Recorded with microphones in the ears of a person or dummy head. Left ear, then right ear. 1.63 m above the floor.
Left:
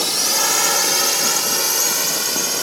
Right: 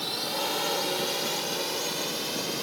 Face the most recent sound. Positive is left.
turn(degrees=55)  # may be behind; listen again after turning